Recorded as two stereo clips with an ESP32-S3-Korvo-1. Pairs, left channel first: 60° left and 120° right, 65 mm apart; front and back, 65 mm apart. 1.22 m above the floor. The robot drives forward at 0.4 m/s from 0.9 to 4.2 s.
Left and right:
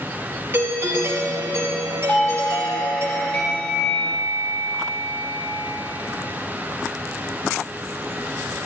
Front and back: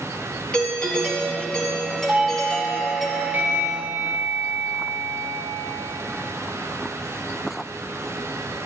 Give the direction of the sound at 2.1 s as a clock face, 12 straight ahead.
8 o'clock.